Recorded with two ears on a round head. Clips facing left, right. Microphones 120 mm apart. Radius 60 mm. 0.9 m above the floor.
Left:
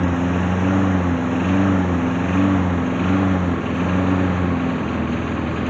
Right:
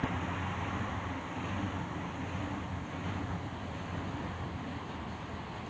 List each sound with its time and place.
0.0 s a lawn mower: 70° left (ahead or behind); by 5.7 s 85° left